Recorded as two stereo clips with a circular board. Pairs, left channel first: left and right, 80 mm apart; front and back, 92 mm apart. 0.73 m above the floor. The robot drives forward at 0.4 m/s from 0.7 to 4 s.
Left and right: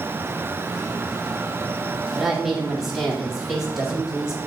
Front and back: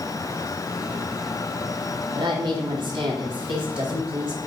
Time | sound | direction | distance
2.1 | a woman speaking | 175° right | 1.7 m